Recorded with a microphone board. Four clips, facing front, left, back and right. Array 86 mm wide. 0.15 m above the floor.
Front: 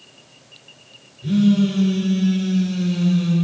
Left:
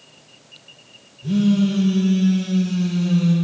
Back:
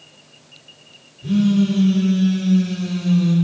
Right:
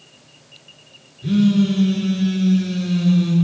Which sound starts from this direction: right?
A phone buzzing, at 1.2 s.